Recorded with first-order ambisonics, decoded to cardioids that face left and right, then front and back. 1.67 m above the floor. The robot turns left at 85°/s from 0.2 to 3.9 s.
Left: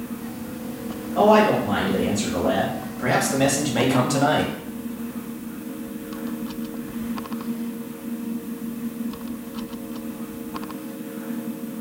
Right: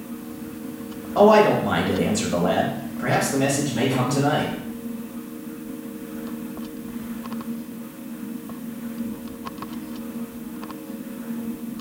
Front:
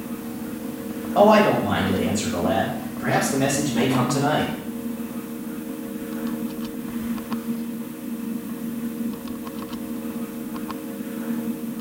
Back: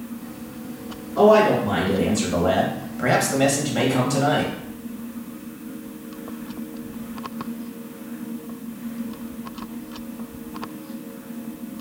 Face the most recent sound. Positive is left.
turn(degrees=100)